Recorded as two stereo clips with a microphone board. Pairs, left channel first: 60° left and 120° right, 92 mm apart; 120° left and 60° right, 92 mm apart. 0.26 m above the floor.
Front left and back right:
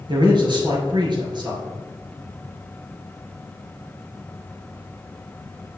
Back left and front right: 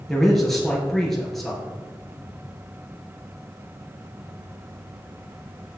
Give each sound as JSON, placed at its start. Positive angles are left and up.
{"t": 0.1, "sound": "a man speaking", "azimuth_deg": -155, "distance_m": 4.0}